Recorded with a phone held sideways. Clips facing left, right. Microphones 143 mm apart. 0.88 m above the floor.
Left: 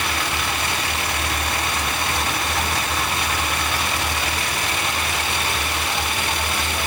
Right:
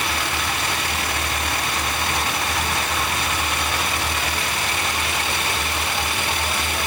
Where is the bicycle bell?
I don't hear a bicycle bell.